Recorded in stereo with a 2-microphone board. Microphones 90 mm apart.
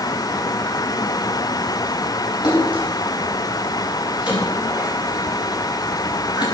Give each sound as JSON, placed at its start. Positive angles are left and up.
{"t": 2.4, "sound": "a splash", "side_deg": 55, "distance_m": 6.5}